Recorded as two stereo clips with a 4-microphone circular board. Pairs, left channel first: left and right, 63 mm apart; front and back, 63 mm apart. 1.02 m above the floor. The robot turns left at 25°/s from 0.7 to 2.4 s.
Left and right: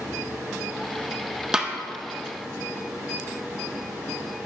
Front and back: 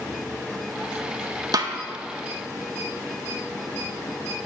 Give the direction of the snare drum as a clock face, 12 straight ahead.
6 o'clock.